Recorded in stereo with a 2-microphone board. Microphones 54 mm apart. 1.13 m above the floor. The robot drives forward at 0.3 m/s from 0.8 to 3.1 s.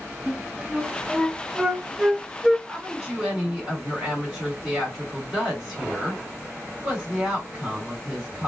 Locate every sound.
0.3 s a flute: 5° right (ahead or behind), 0.5 m
2.7 s a woman speaking: 10° right (ahead or behind), 2 m